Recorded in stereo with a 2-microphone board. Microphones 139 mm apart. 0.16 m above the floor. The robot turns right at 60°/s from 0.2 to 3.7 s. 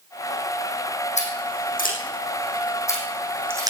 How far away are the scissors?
About 4.5 m.